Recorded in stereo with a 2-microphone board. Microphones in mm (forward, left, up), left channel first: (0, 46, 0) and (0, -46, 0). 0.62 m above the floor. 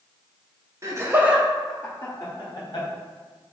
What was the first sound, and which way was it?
Laughter, 35° right (ahead or behind).